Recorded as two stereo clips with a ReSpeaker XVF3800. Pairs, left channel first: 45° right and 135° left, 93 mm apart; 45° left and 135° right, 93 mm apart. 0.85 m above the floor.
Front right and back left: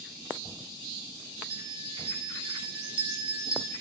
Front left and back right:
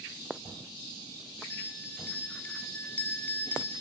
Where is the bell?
115° left, 1.6 m.